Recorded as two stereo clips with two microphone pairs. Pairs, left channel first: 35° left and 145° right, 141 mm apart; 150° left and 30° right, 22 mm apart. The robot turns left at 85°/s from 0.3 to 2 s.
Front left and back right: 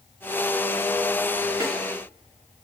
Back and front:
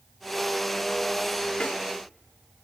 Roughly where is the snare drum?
Behind left.